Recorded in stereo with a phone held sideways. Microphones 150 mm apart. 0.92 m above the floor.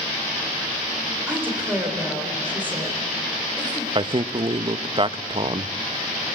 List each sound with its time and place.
1.3 s a woman speaking: 15° right (ahead or behind), 4 m
4.0 s a man speaking: 35° right (ahead or behind), 0.6 m